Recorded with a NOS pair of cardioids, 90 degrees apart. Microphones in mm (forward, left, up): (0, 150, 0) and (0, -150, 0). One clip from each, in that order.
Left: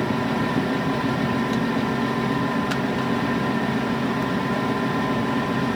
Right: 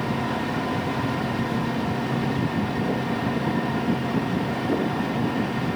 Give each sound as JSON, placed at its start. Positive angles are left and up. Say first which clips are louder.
{"t": 0.0, "sound": "a fan", "louder": "left 3 dB", "azimuth_deg": 25, "distance_m": 2.5}